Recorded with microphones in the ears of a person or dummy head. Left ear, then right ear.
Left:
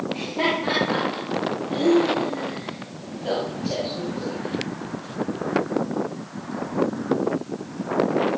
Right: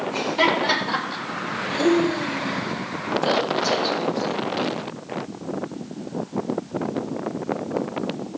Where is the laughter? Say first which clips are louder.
Right 4 dB; 70° right (ahead or behind), 7.5 m; by 4.4 s 50° right (ahead or behind), 3 m.